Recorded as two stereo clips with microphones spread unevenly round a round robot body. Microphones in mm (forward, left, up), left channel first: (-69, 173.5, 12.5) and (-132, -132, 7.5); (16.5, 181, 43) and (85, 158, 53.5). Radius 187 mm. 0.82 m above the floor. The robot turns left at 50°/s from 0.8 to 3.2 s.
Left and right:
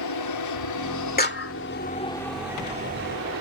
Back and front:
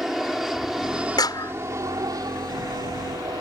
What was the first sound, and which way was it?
An aircraft, 65° left.